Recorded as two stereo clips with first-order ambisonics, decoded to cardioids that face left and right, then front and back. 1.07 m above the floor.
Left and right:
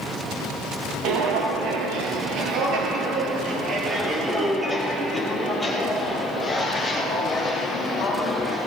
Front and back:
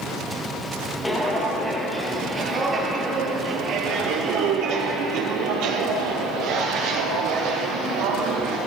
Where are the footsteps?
85° right, 1.8 m; by 8.6 s 160° left, 3 m.